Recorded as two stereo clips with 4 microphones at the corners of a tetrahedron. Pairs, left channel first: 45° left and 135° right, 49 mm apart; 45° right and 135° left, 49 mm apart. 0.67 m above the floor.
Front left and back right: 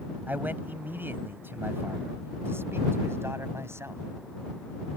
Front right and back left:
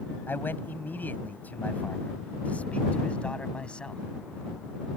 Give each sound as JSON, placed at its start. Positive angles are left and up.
{"t": 0.3, "sound": "a man speaking", "azimuth_deg": -85}